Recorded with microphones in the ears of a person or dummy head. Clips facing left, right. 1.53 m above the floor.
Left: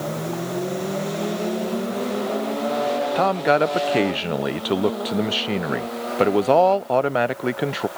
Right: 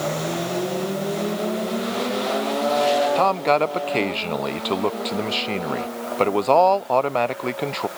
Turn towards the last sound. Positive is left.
turn(degrees=15)  # may be behind; listen again after turning